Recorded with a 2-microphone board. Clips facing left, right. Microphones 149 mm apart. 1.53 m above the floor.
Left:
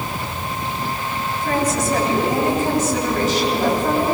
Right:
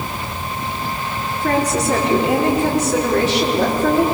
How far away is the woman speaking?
About 5 m.